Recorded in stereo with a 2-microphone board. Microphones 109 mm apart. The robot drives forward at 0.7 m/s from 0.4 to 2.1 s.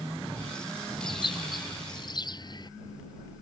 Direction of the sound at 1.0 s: 50° left (ahead or behind).